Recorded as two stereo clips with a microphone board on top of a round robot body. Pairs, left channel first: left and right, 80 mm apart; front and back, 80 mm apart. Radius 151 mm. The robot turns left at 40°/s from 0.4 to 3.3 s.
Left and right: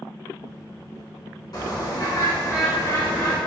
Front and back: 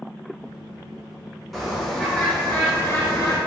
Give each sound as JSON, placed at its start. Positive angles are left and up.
{"t": 1.5, "sound": "a bird", "azimuth_deg": 90, "distance_m": 2.0}